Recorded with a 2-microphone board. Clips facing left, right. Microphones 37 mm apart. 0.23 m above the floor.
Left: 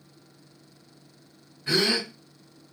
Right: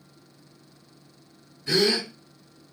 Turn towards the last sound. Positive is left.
turn(degrees=35)  # may be behind; listen again after turning